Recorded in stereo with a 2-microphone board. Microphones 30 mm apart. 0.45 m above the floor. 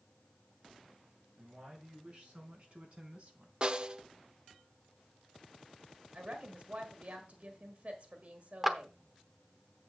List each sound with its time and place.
1.4 s a man speaking: 45° right (ahead or behind), 5.5 m; by 3.5 s 60° right (ahead or behind), 3 m
3.6 s a snare drum: 35° right (ahead or behind), 0.5 m
6.1 s a woman speaking: 60° right (ahead or behind), 1.6 m
8.6 s a clap: 10° right (ahead or behind), 0.8 m